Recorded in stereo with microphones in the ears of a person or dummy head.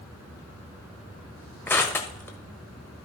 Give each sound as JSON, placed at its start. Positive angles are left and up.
{"t": 1.7, "sound": "crushing", "side_deg": 15, "distance_m": 1.5}